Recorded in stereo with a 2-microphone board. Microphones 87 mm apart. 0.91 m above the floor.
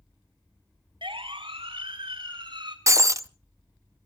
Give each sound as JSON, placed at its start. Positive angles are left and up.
{"t": 1.0, "sound": "a siren", "side_deg": -85, "distance_m": 3.0}
{"t": 2.9, "sound": "breaking glass", "side_deg": -35, "distance_m": 0.6}